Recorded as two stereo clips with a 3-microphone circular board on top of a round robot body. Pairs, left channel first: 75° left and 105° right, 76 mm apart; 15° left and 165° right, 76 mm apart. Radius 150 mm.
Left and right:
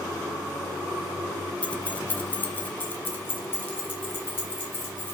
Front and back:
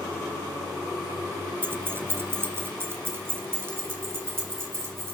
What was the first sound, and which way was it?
Keys jangling, 140° left.